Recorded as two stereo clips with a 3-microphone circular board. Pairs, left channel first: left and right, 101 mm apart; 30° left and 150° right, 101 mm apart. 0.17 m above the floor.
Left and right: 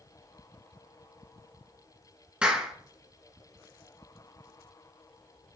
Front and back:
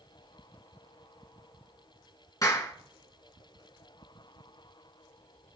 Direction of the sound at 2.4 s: 15° right.